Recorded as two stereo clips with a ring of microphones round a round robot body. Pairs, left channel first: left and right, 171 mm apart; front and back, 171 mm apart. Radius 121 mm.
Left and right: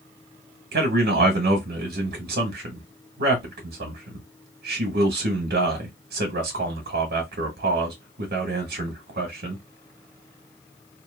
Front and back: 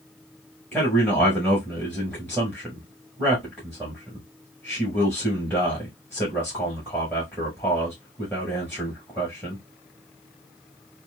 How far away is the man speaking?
About 1.1 m.